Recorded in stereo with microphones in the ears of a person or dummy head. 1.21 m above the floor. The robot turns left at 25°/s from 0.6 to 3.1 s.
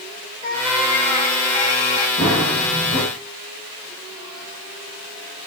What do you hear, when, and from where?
0.4 s a cat meowing: 150° left, 5 m; by 2.1 s 115° left, 5 m
2.2 s running footsteps: 25° left (ahead or behind), 9 m; by 3.0 s 45° left (ahead or behind), 9 m